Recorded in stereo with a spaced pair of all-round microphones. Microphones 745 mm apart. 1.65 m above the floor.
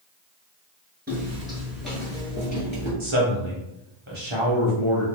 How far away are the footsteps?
About 1.7 m.